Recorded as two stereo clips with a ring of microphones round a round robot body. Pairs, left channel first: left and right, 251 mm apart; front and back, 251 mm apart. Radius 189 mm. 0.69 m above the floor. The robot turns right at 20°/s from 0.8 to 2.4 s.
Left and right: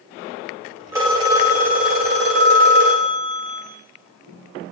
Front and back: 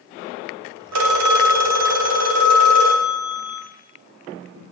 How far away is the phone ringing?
About 1.1 m.